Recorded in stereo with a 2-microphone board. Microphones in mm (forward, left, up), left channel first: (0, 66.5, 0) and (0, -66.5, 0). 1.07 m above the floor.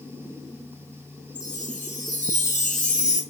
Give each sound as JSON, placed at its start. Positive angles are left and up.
{"t": 1.4, "sound": "a chime", "side_deg": 75, "distance_m": 3.5}